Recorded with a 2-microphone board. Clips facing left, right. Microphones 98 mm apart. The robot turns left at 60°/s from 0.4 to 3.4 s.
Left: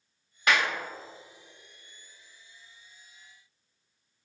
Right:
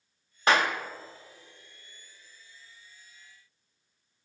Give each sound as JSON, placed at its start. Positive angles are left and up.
{"t": 0.5, "sound": "a clap", "side_deg": -35, "distance_m": 0.9}